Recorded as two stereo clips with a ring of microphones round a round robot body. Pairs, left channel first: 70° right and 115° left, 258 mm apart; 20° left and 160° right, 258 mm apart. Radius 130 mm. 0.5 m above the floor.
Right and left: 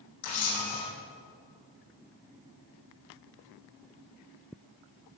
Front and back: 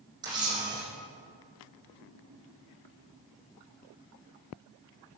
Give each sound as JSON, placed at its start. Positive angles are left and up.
{"t": 0.2, "sound": "a camera shutter", "azimuth_deg": -85, "distance_m": 6.5}